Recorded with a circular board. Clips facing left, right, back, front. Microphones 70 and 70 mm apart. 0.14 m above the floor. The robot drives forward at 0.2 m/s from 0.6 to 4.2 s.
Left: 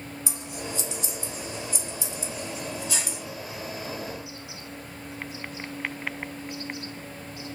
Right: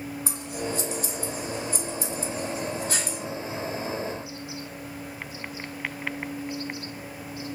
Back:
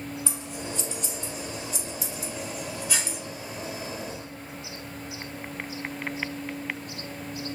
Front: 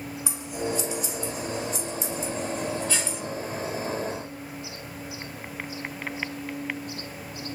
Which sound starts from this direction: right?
Scissors, at 0.3 s.